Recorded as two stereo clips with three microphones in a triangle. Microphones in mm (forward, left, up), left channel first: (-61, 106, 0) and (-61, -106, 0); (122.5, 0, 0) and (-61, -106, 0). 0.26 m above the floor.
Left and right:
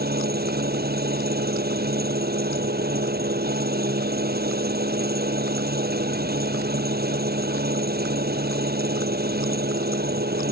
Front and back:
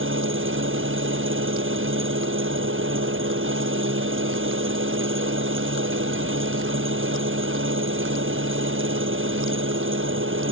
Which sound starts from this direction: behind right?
An engine running, at 0.0 s.